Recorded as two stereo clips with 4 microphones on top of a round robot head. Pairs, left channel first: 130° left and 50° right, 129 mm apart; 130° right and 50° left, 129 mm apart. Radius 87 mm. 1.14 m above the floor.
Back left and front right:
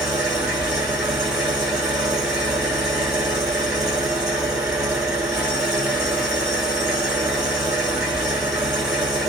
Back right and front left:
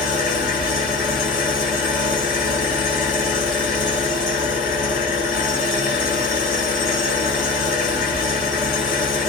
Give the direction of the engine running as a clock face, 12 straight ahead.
5 o'clock.